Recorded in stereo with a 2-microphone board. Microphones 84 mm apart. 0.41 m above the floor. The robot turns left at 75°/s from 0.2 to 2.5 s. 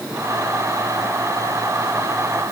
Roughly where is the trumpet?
No trumpet in this recording.